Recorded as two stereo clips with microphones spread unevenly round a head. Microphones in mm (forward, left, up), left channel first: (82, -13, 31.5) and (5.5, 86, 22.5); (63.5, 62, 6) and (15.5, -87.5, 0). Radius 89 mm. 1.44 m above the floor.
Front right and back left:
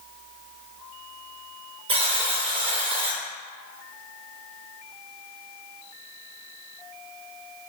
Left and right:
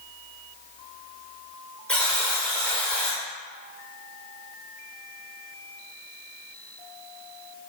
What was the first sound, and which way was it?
A buzzer, 155° left.